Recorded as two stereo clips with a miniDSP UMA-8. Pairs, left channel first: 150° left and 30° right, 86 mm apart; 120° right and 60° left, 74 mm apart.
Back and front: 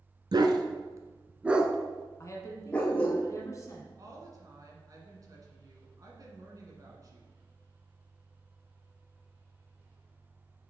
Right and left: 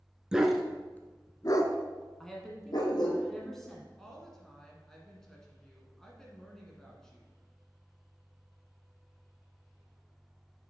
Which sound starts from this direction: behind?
A woman speaking, at 2.2 s.